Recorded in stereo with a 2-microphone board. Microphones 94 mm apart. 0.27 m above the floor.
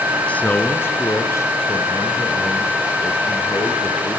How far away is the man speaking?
About 3 m.